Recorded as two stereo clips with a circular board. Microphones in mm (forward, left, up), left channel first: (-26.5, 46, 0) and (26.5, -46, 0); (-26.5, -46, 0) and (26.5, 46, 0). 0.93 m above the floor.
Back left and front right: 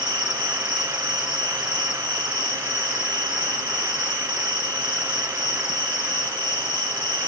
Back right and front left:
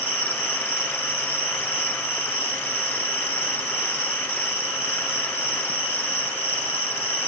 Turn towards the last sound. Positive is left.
turn(degrees=-100)